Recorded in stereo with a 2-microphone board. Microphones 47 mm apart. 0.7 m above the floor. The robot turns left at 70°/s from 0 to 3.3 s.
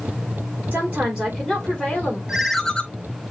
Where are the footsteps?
No footsteps in this recording.